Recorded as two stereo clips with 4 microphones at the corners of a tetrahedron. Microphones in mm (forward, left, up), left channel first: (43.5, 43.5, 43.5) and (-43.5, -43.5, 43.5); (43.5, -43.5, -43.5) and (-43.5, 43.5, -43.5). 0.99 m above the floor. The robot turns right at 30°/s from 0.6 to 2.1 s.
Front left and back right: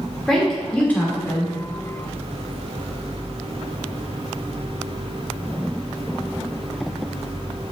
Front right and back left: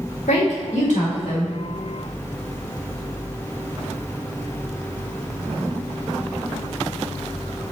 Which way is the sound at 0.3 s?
40° right.